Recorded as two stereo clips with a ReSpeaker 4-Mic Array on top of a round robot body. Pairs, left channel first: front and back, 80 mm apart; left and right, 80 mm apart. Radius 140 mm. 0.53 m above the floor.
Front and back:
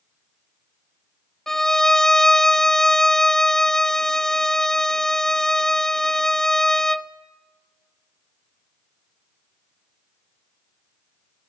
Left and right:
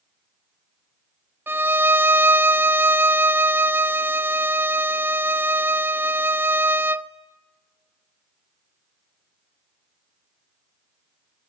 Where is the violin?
75° right, 1.0 m.